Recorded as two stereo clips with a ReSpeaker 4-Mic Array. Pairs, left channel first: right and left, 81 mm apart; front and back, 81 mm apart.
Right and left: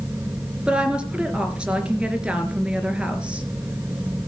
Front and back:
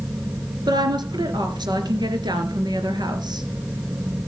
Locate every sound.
0.7 s a woman speaking: 165° left, 3 m